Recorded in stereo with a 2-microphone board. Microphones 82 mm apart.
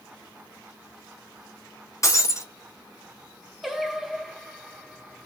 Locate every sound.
2.0 s breaking glass: 40° left (ahead or behind), 1.0 m
3.6 s singing: centre (ahead or behind), 0.8 m